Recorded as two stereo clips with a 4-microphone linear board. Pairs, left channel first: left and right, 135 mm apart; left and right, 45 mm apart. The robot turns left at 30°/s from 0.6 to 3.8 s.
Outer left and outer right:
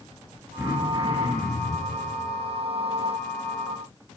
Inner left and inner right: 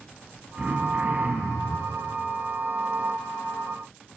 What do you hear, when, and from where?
0.6 s throat clearing: 20° right, 1.2 m; by 1.9 s 60° right, 1.2 m